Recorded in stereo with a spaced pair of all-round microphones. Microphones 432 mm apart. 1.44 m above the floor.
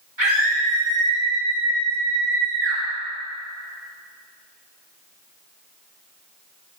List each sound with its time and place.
0.2 s a scream: 80° right, 3 m